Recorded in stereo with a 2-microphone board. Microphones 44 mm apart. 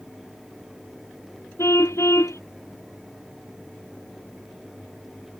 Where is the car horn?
85° left.